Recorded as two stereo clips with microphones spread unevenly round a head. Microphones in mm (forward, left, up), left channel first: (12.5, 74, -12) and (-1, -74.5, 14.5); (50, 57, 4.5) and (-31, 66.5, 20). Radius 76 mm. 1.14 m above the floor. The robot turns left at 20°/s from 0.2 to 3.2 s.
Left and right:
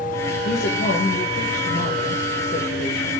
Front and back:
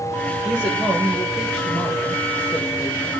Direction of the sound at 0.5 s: 95° left.